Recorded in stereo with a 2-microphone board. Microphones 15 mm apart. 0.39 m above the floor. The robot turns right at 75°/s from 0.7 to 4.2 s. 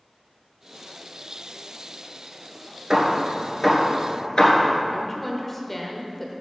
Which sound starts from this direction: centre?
A woman speaking, at 4.9 s.